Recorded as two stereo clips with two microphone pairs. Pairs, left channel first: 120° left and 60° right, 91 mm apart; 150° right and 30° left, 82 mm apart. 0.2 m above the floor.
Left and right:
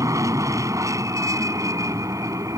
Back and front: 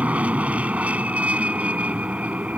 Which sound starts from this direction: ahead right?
An aircraft, at 0.0 s.